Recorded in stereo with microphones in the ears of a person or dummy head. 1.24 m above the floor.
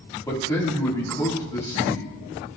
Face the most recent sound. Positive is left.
turn(degrees=15)  # may be behind; listen again after turning